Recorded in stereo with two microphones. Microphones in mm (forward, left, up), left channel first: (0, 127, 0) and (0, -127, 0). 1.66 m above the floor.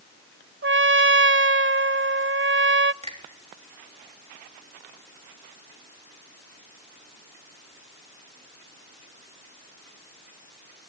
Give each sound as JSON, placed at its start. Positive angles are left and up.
{"t": 0.6, "sound": "a trumpet", "side_deg": -50, "distance_m": 0.5}
{"t": 3.0, "sound": "a finger snap", "side_deg": -25, "distance_m": 3.5}